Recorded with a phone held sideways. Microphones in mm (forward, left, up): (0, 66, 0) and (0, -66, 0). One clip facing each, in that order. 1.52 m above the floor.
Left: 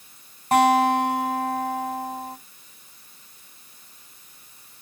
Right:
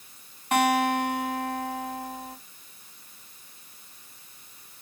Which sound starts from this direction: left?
A guitar, at 0.5 s.